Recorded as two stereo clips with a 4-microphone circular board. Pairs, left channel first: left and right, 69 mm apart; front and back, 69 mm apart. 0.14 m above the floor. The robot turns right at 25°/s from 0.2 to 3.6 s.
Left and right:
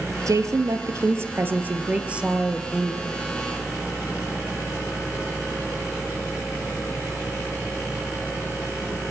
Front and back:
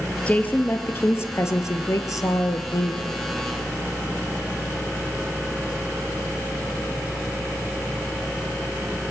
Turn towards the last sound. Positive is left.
turn(degrees=15)